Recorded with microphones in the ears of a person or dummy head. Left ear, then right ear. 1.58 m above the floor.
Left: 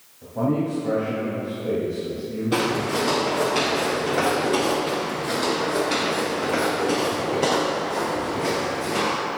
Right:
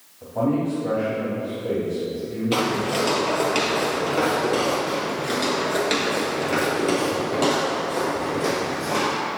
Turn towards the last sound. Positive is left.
turn(degrees=-60)  # may be behind; listen again after turning